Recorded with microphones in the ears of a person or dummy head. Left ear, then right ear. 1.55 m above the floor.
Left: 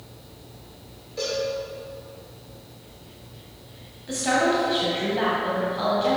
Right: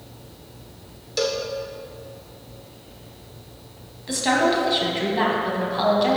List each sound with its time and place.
1.2 s a cowbell: 65° right (ahead or behind), 0.8 m
4.1 s a woman speaking: 25° right (ahead or behind), 1.5 m